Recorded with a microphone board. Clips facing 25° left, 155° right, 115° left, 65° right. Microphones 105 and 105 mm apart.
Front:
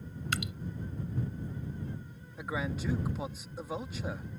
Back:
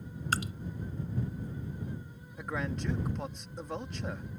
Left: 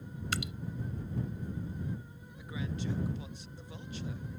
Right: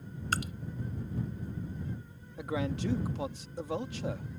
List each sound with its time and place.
0.3 s dripping: 110° right
2.4 s a man speaking: 65° right